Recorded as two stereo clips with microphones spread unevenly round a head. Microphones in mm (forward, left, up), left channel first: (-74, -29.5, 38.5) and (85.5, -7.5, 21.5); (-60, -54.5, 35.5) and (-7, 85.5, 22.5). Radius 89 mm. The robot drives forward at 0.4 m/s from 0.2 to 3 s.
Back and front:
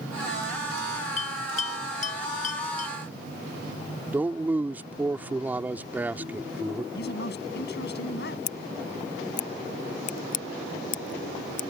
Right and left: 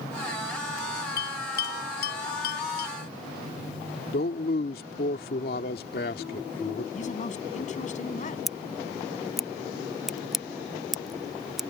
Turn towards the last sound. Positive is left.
turn(degrees=155)